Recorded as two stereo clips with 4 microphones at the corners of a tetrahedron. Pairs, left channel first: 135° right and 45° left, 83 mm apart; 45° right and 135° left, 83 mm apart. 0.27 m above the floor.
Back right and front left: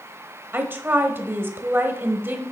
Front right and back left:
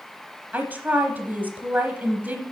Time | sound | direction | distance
0.5 | a woman speaking | 85° left | 1.1 m